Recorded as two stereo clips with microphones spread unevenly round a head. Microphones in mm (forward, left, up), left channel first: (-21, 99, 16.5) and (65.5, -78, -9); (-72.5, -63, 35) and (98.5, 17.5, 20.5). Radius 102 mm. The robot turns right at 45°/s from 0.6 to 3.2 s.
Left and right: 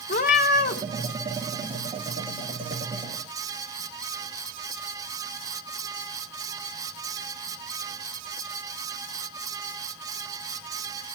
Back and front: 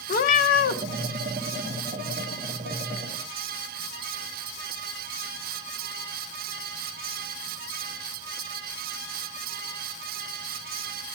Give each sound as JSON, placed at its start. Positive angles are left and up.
{"t": 0.1, "sound": "a cat meowing", "azimuth_deg": 160, "distance_m": 0.7}